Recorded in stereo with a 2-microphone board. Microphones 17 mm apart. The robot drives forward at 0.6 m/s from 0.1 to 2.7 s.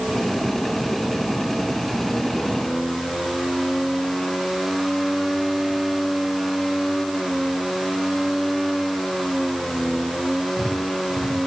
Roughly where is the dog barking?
I don't hear a dog barking.